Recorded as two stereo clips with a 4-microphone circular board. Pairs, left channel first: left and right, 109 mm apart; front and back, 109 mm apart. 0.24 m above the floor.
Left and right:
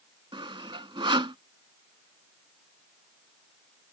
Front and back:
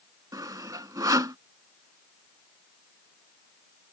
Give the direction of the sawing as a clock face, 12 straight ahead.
4 o'clock.